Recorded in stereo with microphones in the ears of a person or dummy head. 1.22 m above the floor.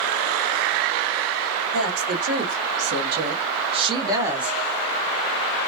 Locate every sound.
1.7 s a woman speaking: 75° right (ahead or behind), 1.3 m; by 4.6 s 5° right (ahead or behind), 0.9 m